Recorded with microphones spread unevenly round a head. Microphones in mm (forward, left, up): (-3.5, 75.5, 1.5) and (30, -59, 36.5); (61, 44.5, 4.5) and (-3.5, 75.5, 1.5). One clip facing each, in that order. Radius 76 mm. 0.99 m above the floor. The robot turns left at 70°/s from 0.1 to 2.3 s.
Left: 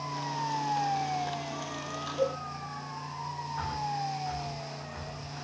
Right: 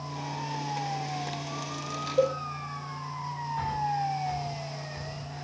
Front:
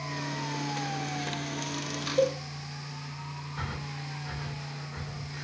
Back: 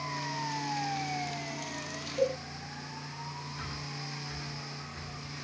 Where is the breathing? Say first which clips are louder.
Right 4 dB, front 3 dB; 5° right, 1.8 m.